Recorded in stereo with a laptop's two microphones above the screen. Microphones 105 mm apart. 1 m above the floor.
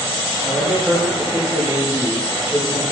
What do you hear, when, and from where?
0.4 s a man speaking: 5° right (ahead or behind), 1.5 m